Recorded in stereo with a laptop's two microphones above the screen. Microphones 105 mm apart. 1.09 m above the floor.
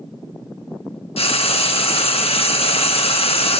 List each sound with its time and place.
1.2 s frying: 65° left (ahead or behind), 0.8 m